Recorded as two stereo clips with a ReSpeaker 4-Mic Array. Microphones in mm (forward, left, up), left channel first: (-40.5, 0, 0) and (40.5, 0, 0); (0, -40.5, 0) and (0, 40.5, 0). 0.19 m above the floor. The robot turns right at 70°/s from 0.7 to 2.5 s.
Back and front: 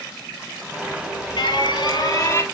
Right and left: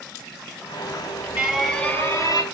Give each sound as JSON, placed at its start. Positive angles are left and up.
{"t": 0.8, "sound": "an alarm", "azimuth_deg": 130, "distance_m": 2.0}